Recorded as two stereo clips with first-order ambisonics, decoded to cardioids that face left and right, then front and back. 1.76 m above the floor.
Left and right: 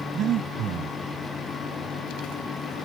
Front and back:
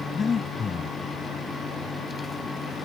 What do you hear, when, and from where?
0.1 s breathing: 60° right